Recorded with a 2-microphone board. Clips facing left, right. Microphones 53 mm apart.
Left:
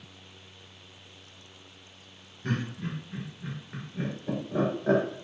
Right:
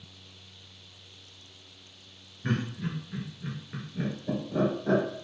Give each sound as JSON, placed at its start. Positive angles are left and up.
{"t": 2.4, "sound": "laughter", "side_deg": -20, "distance_m": 1.7}